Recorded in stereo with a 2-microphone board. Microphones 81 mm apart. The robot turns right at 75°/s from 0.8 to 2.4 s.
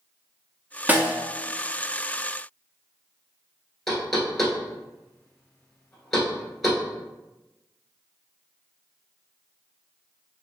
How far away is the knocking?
About 1.4 m.